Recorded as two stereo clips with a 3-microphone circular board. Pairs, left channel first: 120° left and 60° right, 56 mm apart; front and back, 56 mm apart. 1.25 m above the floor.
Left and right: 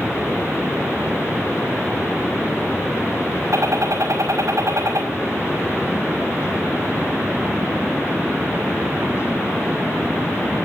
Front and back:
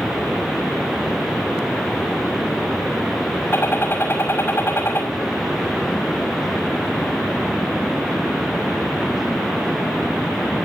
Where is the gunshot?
45° right, 5.5 m.